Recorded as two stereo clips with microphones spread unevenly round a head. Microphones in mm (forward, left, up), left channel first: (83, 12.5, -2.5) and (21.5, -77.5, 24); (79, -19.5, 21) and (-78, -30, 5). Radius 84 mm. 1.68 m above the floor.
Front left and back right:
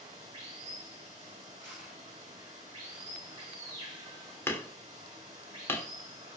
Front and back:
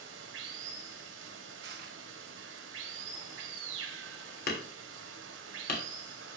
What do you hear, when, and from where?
0.0 s running water: 170° left, 3 m
1.6 s crushing: 155° left, 4 m
4.5 s hammering: 20° right, 3 m